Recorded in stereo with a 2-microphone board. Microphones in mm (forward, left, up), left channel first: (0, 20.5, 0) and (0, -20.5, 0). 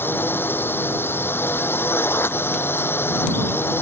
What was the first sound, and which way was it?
A drone, 70° left (ahead or behind).